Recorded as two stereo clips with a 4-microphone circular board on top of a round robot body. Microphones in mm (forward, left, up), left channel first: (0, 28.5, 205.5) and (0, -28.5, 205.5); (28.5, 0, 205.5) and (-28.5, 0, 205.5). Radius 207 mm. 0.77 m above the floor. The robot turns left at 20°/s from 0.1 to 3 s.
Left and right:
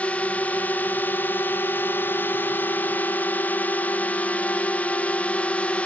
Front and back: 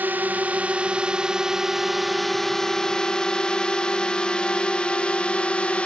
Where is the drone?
140° left; by 5.9 s 50° left.